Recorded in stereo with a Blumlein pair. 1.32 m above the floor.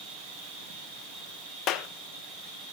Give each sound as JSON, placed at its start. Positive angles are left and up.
{"t": 0.0, "sound": "an insect", "azimuth_deg": -40, "distance_m": 3.0}
{"t": 1.7, "sound": "a clap", "azimuth_deg": 35, "distance_m": 0.8}